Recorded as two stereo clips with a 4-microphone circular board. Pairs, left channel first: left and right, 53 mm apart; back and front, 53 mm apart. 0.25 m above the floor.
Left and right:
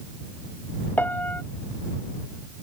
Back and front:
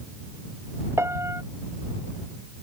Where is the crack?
No crack in this recording.